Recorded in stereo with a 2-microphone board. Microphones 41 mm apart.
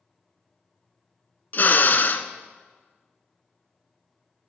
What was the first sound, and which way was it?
A drill, 50° left (ahead or behind).